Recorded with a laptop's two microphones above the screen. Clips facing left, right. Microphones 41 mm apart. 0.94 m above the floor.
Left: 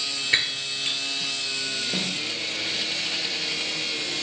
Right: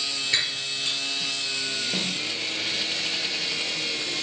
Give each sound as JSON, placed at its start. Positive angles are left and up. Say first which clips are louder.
{"t": 0.3, "sound": "breaking glass", "louder": "left 4 dB", "side_deg": 30, "distance_m": 2.0}
{"t": 1.9, "sound": "a snare drum", "louder": "even", "side_deg": 5, "distance_m": 2.5}